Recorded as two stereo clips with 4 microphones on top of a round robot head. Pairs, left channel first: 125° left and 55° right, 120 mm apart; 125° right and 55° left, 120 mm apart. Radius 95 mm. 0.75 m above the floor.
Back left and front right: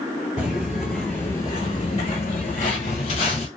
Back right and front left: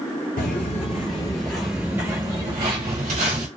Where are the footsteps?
135° right, 1.0 m; by 3.5 s 85° left, 1.3 m.